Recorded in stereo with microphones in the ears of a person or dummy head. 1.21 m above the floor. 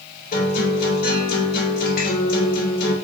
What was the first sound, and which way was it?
A guitar, 45° left (ahead or behind).